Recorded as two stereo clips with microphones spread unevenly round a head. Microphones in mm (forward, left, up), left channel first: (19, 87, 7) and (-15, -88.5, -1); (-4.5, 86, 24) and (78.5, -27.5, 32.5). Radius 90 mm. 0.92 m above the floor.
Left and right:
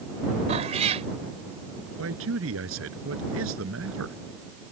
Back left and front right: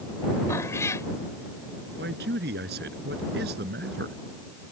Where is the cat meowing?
160° right.